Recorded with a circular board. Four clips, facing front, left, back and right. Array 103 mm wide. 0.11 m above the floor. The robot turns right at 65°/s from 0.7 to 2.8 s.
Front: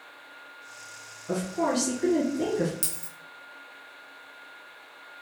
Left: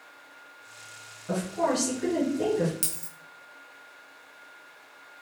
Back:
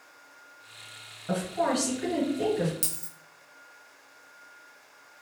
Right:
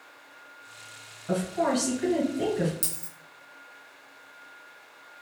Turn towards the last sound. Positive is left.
turn(degrees=90)